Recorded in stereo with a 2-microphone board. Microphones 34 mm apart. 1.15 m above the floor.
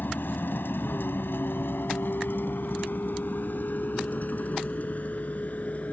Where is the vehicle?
70° left (ahead or behind); by 5.9 s 45° left (ahead or behind).